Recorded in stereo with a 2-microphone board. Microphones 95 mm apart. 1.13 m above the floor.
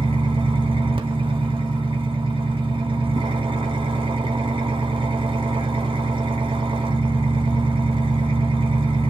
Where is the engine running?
65° right (ahead or behind), 0.8 m.